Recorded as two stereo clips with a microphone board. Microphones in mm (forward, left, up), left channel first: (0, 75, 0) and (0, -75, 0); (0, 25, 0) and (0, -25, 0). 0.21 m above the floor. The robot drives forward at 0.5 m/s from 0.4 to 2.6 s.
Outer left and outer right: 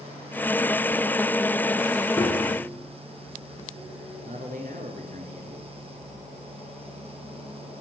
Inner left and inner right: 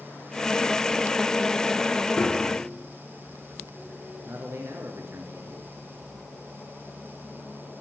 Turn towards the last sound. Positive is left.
turn(degrees=-65)  # may be behind; listen again after turning